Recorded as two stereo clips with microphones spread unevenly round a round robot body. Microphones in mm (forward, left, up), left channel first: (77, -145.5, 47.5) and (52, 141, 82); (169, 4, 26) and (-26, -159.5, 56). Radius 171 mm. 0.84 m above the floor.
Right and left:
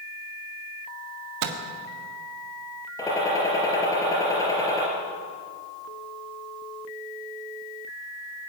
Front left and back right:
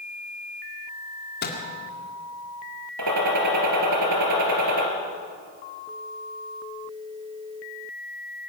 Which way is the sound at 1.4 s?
95° left.